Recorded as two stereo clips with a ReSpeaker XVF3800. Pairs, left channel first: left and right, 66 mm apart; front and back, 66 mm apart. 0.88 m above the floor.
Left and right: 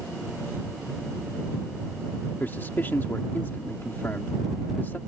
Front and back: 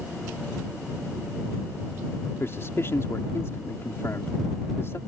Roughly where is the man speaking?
Ahead left.